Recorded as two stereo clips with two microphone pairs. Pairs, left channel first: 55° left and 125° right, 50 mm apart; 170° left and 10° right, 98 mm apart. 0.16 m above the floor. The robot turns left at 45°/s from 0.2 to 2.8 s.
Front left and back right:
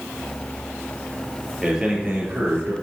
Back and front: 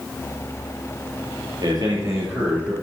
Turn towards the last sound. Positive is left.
turn(degrees=-95)